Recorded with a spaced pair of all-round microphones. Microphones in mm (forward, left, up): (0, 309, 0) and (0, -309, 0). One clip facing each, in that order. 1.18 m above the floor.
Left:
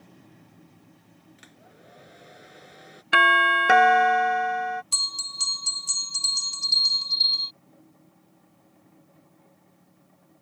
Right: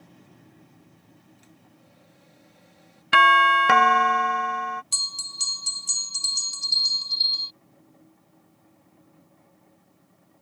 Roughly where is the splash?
No splash in this recording.